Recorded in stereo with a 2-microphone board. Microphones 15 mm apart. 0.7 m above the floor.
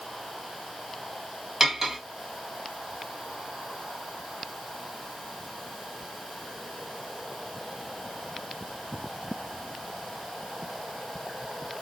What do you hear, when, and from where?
1.6 s cutlery clinking: 25° right (ahead or behind), 1.7 m